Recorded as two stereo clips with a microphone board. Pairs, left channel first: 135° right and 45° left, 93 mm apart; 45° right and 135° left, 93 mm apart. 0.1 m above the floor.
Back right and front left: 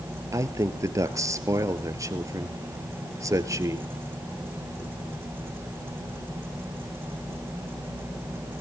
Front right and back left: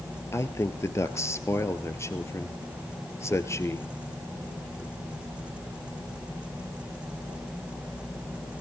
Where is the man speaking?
5° left, 1.6 m.